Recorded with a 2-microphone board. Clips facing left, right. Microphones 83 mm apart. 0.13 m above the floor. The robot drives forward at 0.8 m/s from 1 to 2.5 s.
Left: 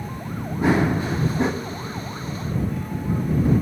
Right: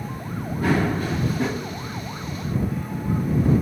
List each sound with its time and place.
0.6 s running footsteps: 20° left (ahead or behind), 1.2 m; by 1.5 s 30° left (ahead or behind), 0.9 m